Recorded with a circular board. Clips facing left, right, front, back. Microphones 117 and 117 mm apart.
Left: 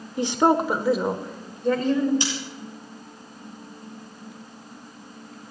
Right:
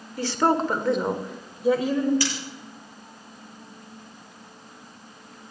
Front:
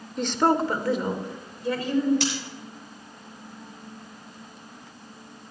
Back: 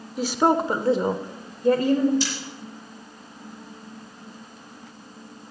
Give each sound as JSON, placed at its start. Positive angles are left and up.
{"t": 0.2, "sound": "a woman speaking", "azimuth_deg": 100, "distance_m": 0.9}
{"t": 2.2, "sound": "scissors", "azimuth_deg": 25, "distance_m": 6.5}